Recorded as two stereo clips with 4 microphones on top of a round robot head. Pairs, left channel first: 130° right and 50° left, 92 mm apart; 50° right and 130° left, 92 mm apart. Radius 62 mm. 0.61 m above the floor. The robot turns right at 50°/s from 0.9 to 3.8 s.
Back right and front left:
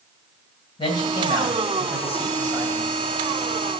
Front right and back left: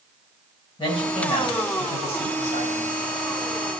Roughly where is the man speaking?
Right.